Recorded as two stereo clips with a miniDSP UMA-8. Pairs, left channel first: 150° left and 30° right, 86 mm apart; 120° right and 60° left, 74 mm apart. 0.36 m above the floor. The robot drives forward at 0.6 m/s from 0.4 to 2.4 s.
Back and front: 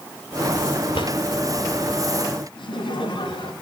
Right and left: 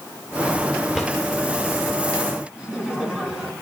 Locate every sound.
0.9 s a drawer: 145° left, 2.5 m
2.5 s laughter: 135° left, 4.5 m